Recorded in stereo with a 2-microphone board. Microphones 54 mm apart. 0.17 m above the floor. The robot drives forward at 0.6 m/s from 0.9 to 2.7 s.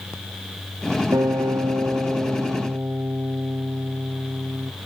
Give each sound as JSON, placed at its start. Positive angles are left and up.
{"t": 1.1, "sound": "a guitar", "side_deg": -80, "distance_m": 1.2}